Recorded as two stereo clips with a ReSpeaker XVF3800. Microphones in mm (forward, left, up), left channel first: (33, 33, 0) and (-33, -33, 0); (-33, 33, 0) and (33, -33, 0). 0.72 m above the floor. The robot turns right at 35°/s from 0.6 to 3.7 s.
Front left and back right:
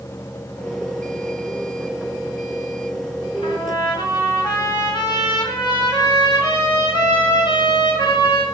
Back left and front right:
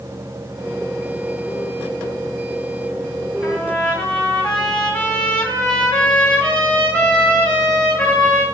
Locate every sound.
3.4 s a trumpet: 50° left, 2.5 m; by 8.4 s 60° left, 2.5 m